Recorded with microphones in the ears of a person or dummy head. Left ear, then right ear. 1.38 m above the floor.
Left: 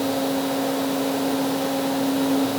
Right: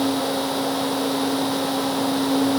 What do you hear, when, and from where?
Only background noise.